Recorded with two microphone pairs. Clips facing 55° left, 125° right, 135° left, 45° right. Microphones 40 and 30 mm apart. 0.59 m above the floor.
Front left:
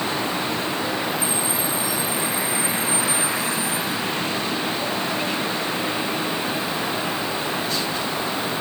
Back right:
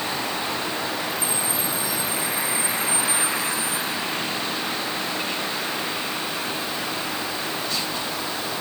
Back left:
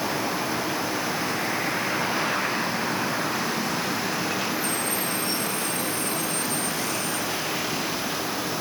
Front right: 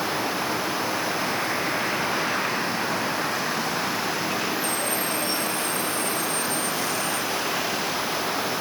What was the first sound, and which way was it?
Only background noise.